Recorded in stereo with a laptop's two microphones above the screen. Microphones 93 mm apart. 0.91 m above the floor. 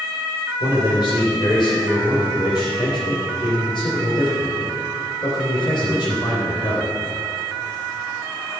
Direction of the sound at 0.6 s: 55° left (ahead or behind).